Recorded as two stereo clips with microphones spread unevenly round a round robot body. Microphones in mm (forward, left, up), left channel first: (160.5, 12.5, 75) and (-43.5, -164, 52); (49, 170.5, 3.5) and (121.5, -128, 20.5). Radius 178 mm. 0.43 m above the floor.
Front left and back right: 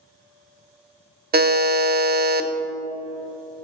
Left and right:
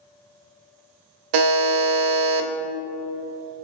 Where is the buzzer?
85° right, 0.6 m.